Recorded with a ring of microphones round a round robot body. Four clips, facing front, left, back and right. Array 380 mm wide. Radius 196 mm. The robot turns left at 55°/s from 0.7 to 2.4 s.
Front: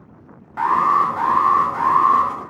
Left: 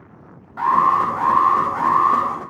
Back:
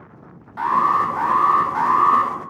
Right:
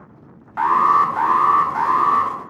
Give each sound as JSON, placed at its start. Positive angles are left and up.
{"t": 0.6, "sound": "an alarm", "azimuth_deg": -75, "distance_m": 0.6}